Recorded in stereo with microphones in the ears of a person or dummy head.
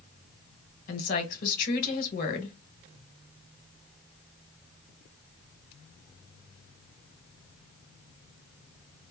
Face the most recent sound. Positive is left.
turn(degrees=50)  # may be behind; listen again after turning